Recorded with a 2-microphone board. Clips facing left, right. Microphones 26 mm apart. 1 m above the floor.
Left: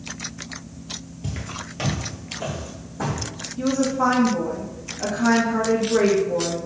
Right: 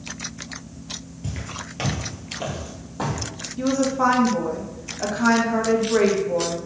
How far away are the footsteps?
About 1.0 m.